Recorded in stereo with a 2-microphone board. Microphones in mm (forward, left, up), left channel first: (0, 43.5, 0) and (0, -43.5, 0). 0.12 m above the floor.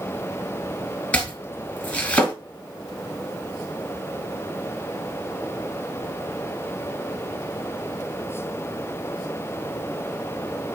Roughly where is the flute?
No flute in this recording.